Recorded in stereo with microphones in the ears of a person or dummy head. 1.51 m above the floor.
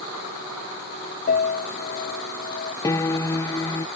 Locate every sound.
1.3 s a piano: 50° left (ahead or behind)
2.8 s a piano: 15° left (ahead or behind)